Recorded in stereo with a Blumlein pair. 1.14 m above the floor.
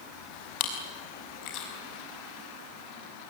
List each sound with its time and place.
0.6 s chewing: 40° left, 5.5 m